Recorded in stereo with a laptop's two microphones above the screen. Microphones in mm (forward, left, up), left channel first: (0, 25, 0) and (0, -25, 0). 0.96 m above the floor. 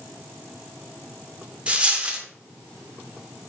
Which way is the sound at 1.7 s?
25° right (ahead or behind).